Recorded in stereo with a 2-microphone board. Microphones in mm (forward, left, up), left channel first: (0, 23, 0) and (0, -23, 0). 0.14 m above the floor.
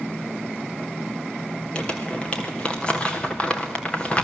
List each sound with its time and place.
1.8 s crumpling: 25° left (ahead or behind), 3 m